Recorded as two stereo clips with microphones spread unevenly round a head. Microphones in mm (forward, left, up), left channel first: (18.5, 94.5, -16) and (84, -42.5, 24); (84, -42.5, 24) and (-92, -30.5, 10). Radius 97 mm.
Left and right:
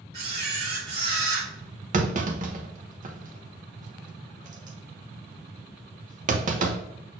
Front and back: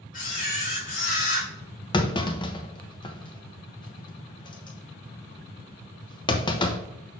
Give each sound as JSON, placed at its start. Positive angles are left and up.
{"t": 0.1, "sound": "a camera shutter", "azimuth_deg": -50, "distance_m": 3.0}
{"t": 1.9, "sound": "a clunk", "azimuth_deg": -55, "distance_m": 1.0}